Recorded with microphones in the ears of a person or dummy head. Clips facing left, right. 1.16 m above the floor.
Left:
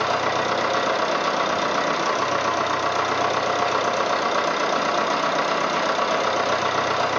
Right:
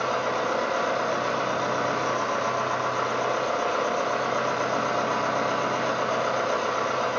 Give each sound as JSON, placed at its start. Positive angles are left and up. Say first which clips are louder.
{"t": 0.0, "sound": "a machine running", "louder": "left 3 dB", "side_deg": 70, "distance_m": 1.6}